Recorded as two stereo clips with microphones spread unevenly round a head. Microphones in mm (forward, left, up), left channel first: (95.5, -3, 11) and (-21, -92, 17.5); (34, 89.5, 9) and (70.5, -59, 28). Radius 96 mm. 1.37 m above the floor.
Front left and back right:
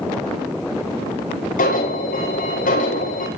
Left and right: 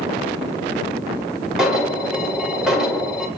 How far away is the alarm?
About 8.5 m.